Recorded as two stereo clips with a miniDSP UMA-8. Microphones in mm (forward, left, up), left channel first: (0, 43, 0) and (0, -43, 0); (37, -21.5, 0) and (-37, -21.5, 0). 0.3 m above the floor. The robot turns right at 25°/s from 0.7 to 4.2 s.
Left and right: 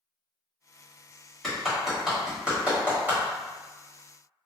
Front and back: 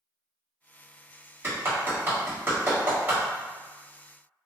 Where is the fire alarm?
I don't hear a fire alarm.